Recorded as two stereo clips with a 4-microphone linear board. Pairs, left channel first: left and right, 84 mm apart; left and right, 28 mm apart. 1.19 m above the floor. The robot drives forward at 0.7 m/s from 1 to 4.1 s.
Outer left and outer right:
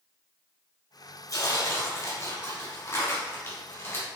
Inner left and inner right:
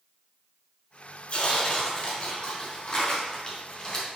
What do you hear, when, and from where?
1.3 s tearing paper: 50° left (ahead or behind), 1.7 m; by 4.1 s 25° left (ahead or behind), 3 m